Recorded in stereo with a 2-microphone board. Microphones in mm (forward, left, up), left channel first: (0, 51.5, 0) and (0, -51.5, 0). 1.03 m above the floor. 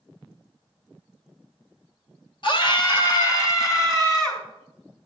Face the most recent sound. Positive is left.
turn(degrees=30)  # may be behind; listen again after turning